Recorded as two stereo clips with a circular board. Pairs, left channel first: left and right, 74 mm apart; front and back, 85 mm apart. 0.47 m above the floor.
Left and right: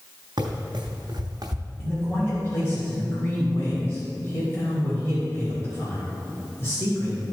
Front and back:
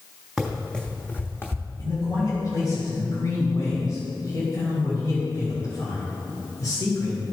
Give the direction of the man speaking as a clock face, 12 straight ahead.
11 o'clock.